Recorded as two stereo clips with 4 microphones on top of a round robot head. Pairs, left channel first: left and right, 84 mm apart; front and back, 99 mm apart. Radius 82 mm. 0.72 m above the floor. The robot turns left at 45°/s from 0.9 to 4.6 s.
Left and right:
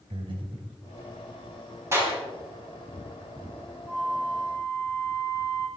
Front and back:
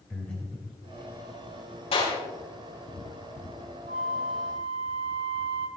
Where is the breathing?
80° right, 3.5 m.